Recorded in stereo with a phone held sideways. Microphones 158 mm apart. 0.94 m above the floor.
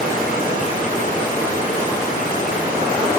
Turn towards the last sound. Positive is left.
turn(degrees=55)  # may be behind; listen again after turning